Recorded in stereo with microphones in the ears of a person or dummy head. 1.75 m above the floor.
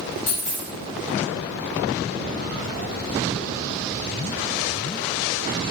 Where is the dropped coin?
10° right (ahead or behind), 1.3 m.